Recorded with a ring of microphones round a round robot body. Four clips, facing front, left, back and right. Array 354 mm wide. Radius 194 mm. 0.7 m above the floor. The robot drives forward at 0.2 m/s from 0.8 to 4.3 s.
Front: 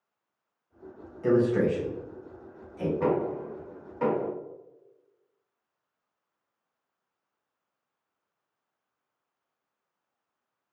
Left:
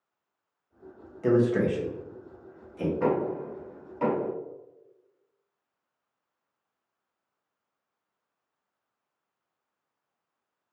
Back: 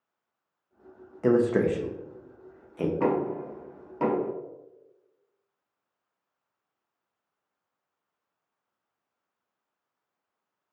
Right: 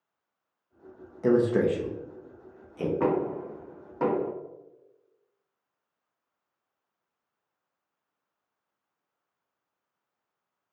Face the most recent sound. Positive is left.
turn(degrees=-140)